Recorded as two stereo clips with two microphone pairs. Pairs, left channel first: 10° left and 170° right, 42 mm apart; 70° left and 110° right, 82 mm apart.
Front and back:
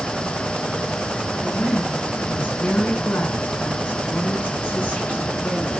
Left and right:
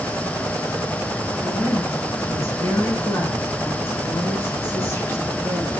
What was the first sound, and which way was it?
A woman speaking, 40° left.